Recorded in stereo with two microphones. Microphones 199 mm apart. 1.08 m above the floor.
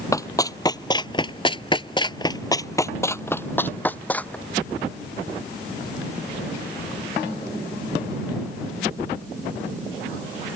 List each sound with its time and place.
0.1 s running footsteps: 15° left (ahead or behind); by 4.4 s 5° left (ahead or behind)